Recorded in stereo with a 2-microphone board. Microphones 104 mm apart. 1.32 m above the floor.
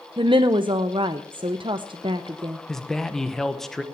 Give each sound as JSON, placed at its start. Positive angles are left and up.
{"t": 0.2, "sound": "a woman speaking", "side_deg": -55, "distance_m": 0.6}
{"t": 2.7, "sound": "a man speaking", "side_deg": 5, "distance_m": 1.0}